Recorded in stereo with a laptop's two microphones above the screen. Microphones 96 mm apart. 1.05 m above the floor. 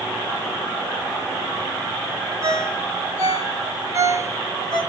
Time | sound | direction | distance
2.4 | a ringtone | 40° right (ahead or behind) | 0.9 m